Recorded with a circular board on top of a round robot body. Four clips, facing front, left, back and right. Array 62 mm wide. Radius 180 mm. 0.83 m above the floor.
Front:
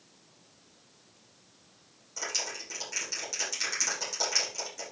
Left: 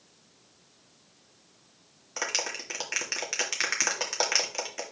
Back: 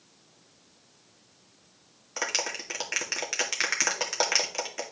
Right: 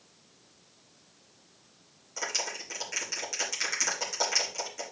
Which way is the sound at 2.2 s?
140° left.